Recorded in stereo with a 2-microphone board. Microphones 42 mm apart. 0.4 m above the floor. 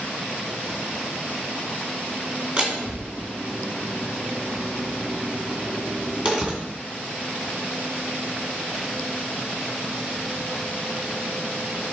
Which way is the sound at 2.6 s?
25° right (ahead or behind).